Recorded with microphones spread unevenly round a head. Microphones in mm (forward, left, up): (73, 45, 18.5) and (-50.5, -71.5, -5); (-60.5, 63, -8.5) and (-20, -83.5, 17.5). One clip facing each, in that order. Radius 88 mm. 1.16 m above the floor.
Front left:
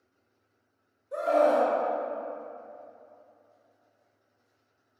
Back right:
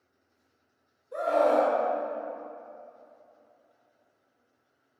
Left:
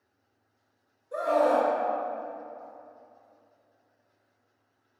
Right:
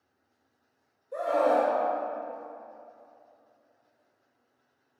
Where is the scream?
80° left, 1.8 m.